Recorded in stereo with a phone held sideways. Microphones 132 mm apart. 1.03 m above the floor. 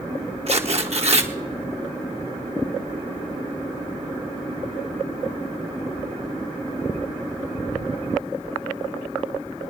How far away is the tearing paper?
About 1.2 m.